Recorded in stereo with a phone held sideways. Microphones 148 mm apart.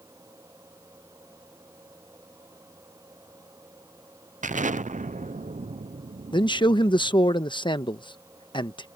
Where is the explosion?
60° right (ahead or behind).